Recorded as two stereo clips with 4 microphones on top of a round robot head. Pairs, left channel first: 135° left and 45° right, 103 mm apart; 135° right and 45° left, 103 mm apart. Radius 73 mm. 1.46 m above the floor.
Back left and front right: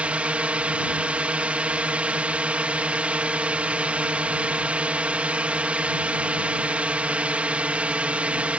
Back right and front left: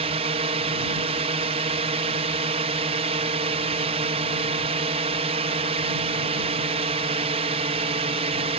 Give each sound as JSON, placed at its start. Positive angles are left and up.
{"t": 0.0, "sound": "a drone", "azimuth_deg": 30}